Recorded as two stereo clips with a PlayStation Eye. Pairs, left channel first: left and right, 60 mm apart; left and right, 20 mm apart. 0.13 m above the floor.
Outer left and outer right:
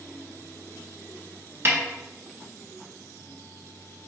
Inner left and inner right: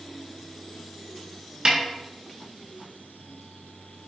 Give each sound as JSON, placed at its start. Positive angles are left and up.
{"t": 1.6, "sound": "a snare drum", "side_deg": -40, "distance_m": 1.0}